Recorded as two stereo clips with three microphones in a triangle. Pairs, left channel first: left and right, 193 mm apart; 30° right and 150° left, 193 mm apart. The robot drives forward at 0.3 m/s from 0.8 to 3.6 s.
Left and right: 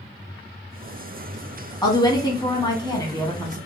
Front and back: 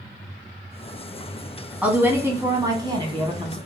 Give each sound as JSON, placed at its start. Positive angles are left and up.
{"t": 1.8, "sound": "a woman speaking", "azimuth_deg": 80, "distance_m": 1.0}